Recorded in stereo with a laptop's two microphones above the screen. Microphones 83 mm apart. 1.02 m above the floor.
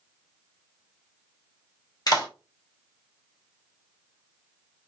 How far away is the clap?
About 0.7 m.